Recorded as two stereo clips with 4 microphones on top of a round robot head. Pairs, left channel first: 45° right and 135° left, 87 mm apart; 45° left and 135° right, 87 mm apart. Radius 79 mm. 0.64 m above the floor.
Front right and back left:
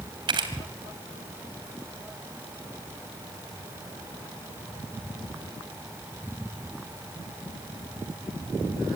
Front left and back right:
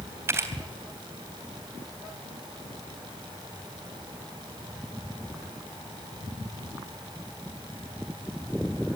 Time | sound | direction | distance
0.3 | a camera shutter | 165° left | 3 m